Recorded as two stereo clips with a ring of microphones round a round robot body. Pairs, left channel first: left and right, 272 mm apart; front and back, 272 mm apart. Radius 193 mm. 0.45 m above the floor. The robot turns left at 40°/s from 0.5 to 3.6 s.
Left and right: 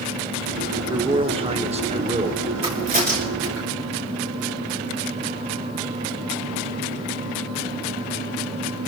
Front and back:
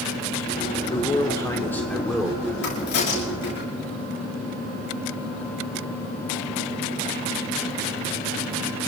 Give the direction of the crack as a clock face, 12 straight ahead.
1 o'clock.